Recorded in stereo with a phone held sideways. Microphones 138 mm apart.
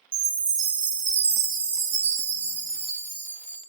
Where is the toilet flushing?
I don't hear a toilet flushing.